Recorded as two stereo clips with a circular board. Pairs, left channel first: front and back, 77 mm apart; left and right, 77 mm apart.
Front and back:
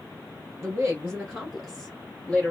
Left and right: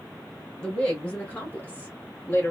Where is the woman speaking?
160° left, 1.6 m; by 2.5 s 55° left, 1.6 m.